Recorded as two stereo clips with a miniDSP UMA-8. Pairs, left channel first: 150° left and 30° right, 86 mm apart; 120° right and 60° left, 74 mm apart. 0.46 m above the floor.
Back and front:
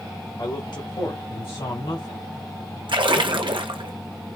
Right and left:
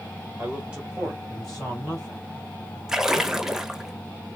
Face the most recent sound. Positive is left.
turn(degrees=-20)